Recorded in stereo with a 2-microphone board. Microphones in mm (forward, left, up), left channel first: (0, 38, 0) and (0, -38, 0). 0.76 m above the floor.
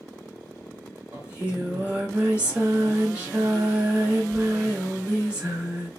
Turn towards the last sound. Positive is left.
turn(degrees=-20)  # may be behind; listen again after turning